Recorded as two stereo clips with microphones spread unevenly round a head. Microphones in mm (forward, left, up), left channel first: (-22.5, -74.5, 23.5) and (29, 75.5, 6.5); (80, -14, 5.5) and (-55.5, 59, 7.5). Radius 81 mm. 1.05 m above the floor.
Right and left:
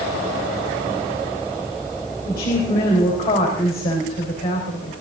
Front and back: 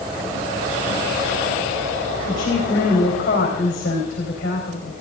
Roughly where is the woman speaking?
Right.